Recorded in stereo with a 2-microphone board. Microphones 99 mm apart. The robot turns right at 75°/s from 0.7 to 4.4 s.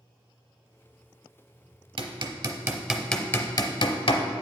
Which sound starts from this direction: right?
Hammering, at 2.0 s.